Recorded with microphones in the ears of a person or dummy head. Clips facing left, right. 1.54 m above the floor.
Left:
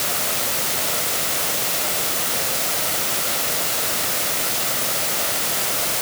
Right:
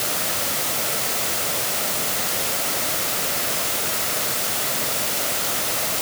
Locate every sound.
Only background noise.